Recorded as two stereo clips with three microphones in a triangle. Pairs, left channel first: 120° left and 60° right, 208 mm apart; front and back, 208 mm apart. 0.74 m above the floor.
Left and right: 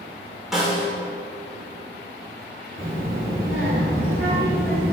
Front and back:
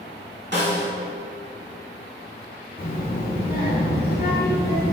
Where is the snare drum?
150° right, 1.7 m.